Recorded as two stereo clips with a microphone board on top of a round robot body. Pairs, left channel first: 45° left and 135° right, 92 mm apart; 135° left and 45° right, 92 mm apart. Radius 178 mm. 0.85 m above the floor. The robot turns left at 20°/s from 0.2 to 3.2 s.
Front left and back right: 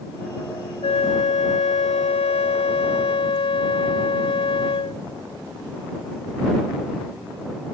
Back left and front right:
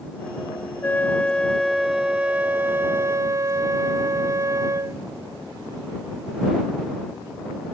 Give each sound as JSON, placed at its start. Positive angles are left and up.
{"t": 0.8, "sound": "a flute", "azimuth_deg": 60}